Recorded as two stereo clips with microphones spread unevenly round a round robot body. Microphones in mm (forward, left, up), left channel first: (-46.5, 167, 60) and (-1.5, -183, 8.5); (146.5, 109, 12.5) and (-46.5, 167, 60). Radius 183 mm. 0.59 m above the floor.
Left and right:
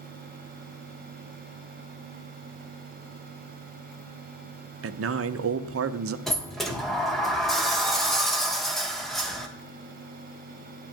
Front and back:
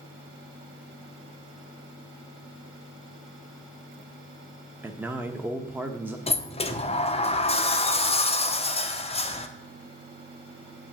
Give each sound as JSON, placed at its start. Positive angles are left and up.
{"t": 4.8, "sound": "a man speaking", "azimuth_deg": -105, "distance_m": 0.8}
{"t": 6.3, "sound": "a sliding door", "azimuth_deg": 0, "distance_m": 1.3}